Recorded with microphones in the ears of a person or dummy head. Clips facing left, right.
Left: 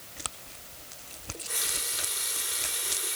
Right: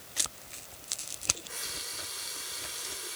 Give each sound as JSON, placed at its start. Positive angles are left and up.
{"t": 1.3, "sound": "a running tap", "side_deg": 50, "distance_m": 2.5}